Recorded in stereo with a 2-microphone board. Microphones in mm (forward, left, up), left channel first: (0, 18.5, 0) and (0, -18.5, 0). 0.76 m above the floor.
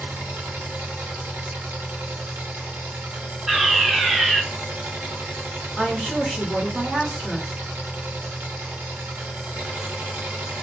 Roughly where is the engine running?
Right.